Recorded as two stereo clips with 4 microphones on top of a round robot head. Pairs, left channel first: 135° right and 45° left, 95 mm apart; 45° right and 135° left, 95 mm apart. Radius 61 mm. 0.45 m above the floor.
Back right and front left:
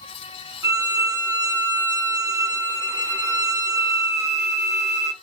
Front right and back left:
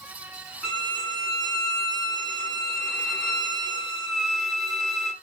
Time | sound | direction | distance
0.6 | a violin | 40° left | 1.3 m